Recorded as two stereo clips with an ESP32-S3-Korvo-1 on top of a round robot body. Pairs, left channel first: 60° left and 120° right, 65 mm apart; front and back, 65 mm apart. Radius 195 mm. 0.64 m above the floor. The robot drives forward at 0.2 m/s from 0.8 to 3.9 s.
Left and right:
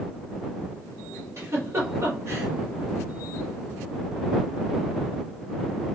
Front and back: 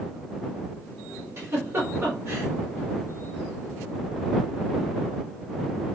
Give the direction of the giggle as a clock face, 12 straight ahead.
5 o'clock.